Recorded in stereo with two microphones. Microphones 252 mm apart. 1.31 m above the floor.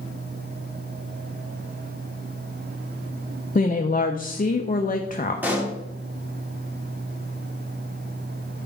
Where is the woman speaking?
35° left (ahead or behind), 0.5 m.